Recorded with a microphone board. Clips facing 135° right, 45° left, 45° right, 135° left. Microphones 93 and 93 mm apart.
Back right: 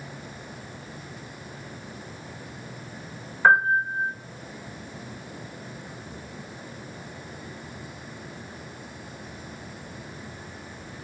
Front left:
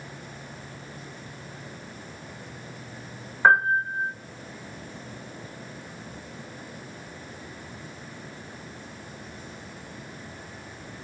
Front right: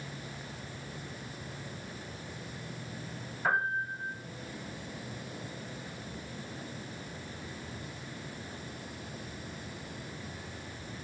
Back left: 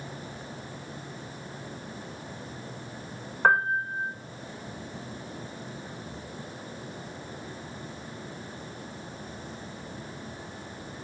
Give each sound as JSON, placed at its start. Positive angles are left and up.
{"t": 3.4, "sound": "a piano", "azimuth_deg": 115, "distance_m": 4.5}